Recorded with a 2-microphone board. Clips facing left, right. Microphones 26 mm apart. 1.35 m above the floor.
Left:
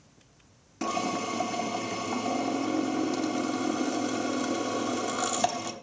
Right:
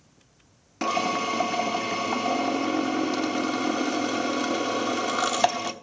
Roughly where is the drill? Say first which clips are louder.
Right 5 dB; right.